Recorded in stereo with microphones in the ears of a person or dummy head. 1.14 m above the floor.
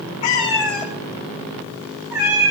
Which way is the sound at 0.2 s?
20° left (ahead or behind).